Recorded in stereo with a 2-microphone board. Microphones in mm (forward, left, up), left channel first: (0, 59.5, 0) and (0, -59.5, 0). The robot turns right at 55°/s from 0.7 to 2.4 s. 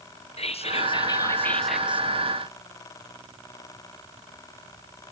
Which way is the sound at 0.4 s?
125° left.